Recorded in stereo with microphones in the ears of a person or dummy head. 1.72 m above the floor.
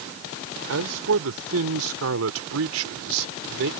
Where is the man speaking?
75° right (ahead or behind); by 3.7 s 65° right (ahead or behind).